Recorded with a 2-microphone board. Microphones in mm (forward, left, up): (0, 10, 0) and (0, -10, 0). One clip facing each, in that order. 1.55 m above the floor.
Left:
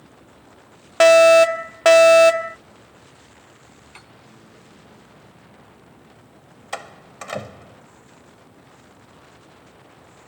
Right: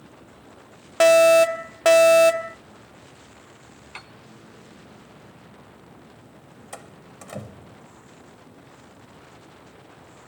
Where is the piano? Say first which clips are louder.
Right 6 dB; 30° right (ahead or behind).